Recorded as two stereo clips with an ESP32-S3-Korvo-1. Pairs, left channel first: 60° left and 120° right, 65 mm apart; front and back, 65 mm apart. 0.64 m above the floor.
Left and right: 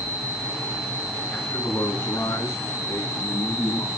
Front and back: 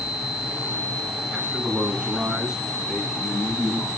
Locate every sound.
1.3 s a man speaking: 110° left, 5.5 m; by 3.9 s 90° left, 7 m